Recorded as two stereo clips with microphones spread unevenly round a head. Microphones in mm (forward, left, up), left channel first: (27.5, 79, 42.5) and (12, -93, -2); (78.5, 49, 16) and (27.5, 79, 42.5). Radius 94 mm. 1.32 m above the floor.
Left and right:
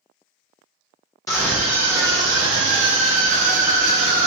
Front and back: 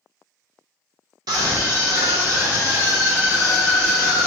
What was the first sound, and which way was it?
A scream, 165° left.